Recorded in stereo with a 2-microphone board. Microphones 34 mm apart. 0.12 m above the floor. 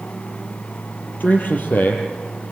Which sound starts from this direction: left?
A man speaking, at 1.2 s.